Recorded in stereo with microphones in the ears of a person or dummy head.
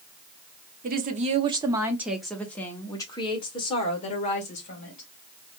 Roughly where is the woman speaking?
Right.